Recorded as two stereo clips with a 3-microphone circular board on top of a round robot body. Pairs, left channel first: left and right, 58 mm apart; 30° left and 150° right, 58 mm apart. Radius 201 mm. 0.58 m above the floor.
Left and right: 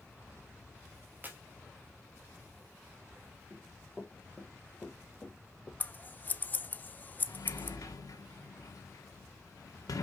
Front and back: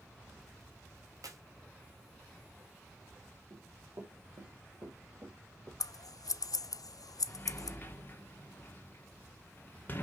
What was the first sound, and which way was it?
A clap, 150° right.